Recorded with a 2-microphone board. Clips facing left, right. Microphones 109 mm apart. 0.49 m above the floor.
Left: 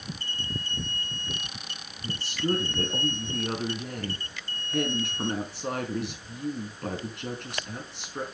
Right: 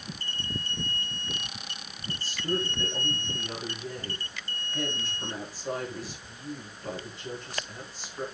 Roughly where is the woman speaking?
Left.